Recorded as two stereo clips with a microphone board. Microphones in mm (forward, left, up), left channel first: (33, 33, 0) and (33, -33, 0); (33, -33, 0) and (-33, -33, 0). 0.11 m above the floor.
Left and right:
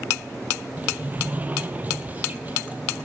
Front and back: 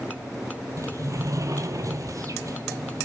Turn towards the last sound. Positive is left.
turn(degrees=-150)